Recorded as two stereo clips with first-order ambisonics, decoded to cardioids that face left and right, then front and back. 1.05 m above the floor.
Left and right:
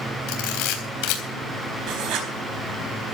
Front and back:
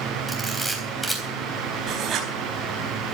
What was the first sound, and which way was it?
A camera shutter, 90° left.